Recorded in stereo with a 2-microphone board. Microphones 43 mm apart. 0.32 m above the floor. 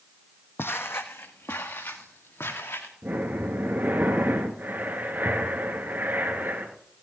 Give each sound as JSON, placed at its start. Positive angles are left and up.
{"t": 0.6, "sound": "footsteps", "side_deg": 65, "distance_m": 0.9}
{"t": 3.0, "sound": "breathing", "side_deg": -45, "distance_m": 2.0}